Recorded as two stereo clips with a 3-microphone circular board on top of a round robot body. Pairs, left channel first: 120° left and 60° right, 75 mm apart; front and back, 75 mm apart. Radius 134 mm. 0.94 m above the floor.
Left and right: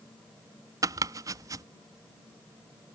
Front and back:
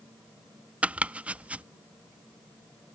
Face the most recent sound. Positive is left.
turn(degrees=-105)